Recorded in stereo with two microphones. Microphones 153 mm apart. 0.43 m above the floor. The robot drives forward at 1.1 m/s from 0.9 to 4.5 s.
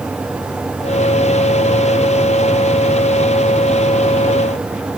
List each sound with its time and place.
Only background noise.